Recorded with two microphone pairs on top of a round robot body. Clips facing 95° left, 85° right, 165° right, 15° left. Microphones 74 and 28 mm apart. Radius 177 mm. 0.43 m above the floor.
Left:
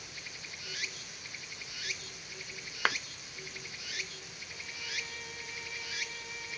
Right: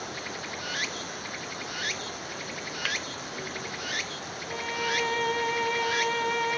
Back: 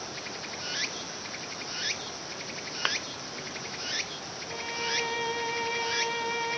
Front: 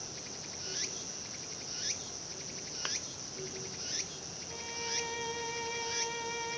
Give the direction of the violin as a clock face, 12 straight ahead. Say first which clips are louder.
Right 15 dB, back 8 dB; 3 o'clock.